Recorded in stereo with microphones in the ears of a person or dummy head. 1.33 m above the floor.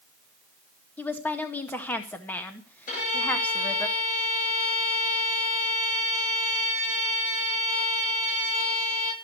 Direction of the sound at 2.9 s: 55° left (ahead or behind).